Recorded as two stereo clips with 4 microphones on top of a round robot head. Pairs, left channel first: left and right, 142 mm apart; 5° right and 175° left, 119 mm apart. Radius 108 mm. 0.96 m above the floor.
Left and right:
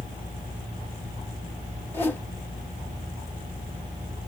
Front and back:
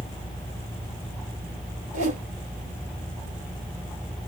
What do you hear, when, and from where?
1.9 s a whoosh: 165° left, 3.5 m